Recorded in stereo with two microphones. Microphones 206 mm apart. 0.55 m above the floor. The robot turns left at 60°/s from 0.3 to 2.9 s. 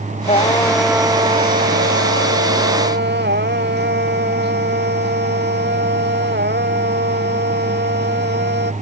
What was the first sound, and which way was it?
Singing, 30° left.